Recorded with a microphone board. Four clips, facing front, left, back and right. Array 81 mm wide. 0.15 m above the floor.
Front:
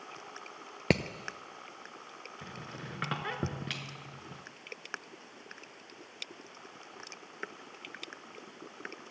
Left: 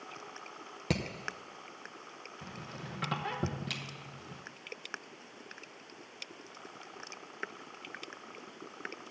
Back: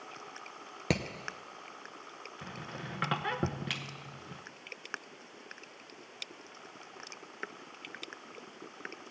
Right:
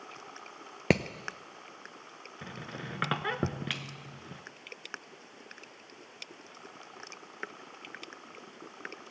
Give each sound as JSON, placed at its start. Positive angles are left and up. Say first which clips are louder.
{"t": 0.9, "sound": "hammering", "louder": "right 7 dB, front 4 dB", "azimuth_deg": -70, "distance_m": 0.7}
{"t": 2.4, "sound": "a squeak", "louder": "right 4 dB, back 2 dB", "azimuth_deg": -100, "distance_m": 0.8}